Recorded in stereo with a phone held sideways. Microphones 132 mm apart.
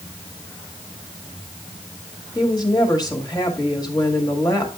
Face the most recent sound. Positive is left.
turn(degrees=30)  # may be behind; listen again after turning